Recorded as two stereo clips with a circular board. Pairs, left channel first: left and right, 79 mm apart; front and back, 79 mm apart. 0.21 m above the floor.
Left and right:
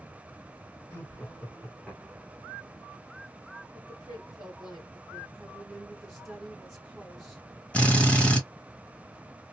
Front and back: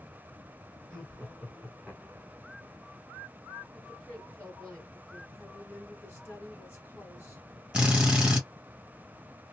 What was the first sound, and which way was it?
Laughter, 75° left.